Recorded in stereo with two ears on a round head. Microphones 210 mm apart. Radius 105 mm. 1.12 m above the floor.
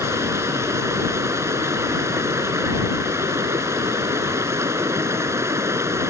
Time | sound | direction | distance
0.0 | running water | 10° right (ahead or behind) | ?